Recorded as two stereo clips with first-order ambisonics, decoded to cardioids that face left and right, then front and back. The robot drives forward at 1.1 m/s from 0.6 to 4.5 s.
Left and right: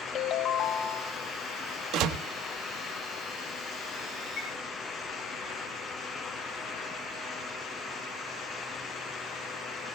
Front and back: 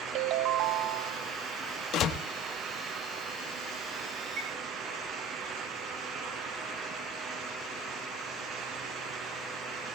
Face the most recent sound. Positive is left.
turn(degrees=150)